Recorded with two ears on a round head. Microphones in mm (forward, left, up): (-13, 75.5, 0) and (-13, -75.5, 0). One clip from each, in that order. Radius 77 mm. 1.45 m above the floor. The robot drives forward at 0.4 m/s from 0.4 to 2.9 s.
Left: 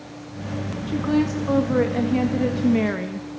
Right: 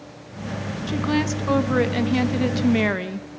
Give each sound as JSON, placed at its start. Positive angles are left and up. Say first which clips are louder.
{"t": 0.9, "sound": "a woman speaking", "louder": "left 1 dB", "side_deg": -45, "distance_m": 1.7}